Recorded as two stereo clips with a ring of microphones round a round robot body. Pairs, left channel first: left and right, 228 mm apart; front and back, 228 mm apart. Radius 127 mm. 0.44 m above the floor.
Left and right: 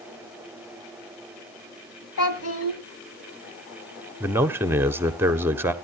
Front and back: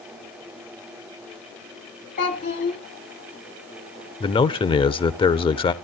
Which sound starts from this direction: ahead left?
A child speaking, at 2.2 s.